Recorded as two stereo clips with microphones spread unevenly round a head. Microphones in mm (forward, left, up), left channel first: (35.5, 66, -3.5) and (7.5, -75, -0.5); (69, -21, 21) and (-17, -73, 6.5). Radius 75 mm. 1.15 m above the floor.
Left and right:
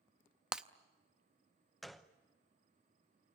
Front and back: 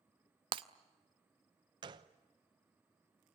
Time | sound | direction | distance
0.5 | breaking glass | straight behind | 0.5 m
1.8 | a gunshot | 170° left | 0.8 m